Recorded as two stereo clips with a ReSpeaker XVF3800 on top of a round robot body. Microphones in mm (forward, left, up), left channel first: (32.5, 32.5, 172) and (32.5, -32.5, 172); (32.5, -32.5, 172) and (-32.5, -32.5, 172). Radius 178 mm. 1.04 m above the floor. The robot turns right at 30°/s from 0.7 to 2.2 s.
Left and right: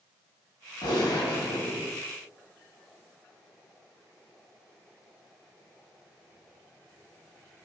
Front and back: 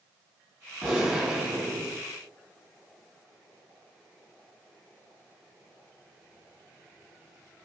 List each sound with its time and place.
0.8 s a gunshot: 85° left, 1.3 m; by 2.0 s 120° left, 1.3 m